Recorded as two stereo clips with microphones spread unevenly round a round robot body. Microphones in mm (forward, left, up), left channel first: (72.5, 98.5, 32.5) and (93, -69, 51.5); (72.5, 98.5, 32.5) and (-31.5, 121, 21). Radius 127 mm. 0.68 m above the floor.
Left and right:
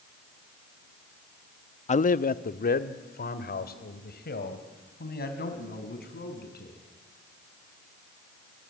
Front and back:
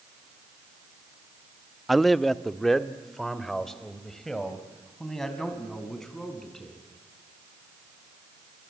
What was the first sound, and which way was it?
A man speaking, 85° left.